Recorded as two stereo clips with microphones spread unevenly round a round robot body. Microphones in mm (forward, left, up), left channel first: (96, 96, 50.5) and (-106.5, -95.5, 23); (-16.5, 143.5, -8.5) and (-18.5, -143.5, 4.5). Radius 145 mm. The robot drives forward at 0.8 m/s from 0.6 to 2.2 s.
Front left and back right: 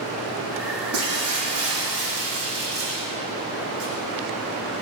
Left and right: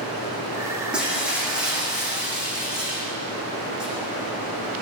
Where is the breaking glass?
175° right, 9 m.